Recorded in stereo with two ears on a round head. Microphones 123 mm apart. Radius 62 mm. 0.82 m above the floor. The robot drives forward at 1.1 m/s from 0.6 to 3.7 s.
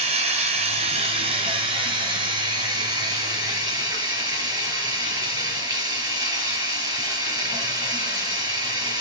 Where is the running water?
50° right (ahead or behind), 4 m; by 9.0 s 25° right (ahead or behind), 7 m.